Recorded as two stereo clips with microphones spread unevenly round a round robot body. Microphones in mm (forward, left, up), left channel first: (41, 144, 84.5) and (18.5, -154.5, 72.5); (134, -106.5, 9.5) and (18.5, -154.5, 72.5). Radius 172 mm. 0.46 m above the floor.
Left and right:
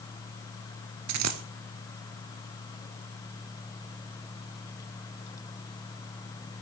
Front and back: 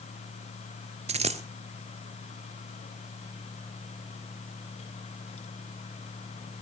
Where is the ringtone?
No ringtone in this recording.